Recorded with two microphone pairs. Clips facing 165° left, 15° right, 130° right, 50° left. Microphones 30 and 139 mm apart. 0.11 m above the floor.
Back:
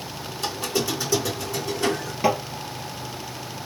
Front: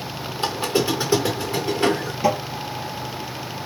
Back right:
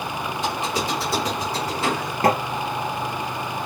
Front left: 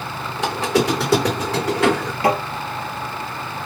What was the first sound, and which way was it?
A squeak, 40° left.